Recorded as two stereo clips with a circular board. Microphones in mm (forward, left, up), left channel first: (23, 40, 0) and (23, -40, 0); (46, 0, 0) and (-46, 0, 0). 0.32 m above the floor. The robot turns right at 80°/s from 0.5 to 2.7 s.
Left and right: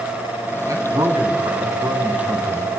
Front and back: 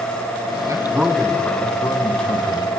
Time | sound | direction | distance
0.7 | a man speaking | 130° right | 3 m